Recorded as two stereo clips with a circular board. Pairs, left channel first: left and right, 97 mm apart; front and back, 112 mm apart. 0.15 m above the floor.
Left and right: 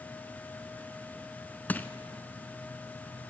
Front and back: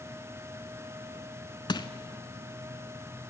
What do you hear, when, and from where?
1.7 s crushing: 25° left, 0.9 m